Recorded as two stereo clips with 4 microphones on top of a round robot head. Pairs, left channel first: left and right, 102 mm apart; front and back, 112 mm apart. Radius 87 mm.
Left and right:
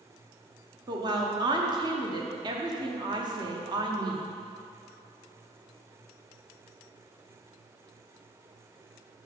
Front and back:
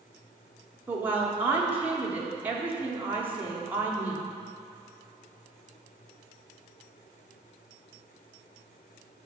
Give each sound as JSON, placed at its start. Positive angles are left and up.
{"t": 0.9, "sound": "a woman speaking", "azimuth_deg": -110, "distance_m": 0.9}